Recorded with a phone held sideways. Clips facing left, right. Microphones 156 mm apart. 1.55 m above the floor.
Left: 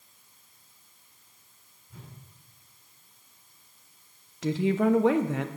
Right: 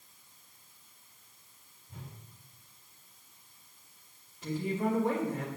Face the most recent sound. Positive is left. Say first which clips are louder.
# left 8 dB
turn(degrees=80)